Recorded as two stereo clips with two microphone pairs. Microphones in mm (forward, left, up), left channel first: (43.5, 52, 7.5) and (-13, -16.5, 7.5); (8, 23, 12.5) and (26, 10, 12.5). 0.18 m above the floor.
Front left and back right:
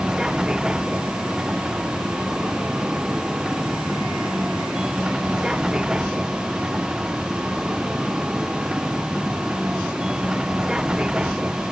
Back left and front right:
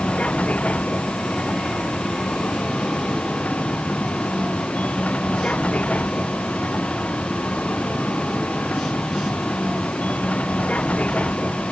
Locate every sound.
0.0 s a vehicle: 150° left